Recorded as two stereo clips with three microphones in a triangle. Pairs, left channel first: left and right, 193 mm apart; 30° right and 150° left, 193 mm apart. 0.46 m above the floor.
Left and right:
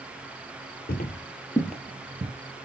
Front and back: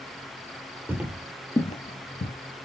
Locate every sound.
0.9 s footsteps: 75° left, 0.7 m; by 2.3 s 35° right, 0.8 m